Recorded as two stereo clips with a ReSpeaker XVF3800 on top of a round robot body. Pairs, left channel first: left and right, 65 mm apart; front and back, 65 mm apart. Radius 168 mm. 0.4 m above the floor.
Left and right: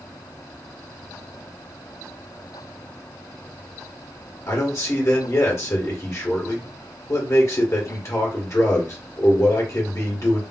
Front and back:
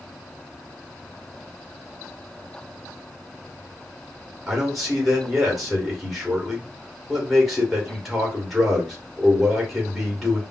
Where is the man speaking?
90° left, 1.9 m.